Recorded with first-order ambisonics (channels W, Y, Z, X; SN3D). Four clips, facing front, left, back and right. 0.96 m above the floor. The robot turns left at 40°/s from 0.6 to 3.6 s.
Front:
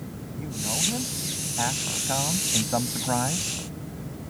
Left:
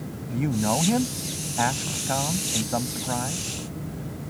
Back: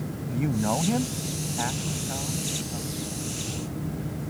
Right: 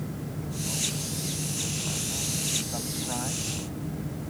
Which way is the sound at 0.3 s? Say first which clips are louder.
Left 13 dB, back 5 dB; 125° left.